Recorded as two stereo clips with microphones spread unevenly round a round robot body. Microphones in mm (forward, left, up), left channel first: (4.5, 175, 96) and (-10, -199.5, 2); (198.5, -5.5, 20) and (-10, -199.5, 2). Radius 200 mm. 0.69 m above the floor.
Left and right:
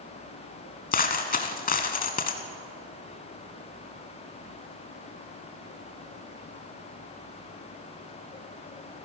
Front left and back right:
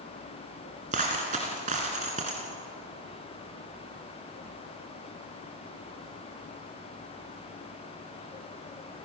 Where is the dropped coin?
150° left, 1.4 m.